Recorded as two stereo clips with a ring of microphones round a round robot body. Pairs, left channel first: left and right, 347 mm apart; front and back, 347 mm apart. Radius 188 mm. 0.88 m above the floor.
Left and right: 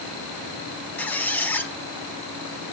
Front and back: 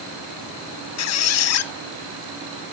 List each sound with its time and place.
1.0 s a squeak: 5° left, 0.9 m